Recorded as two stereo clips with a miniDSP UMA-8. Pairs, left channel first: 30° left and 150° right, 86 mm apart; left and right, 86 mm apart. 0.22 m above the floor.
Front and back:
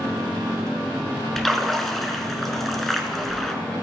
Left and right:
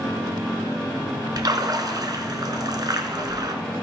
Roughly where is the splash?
Ahead right.